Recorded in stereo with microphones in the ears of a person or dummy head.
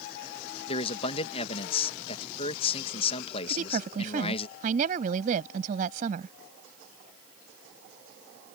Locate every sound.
0.7 s a man speaking: 35° left (ahead or behind)
3.5 s a woman speaking: 45° right (ahead or behind)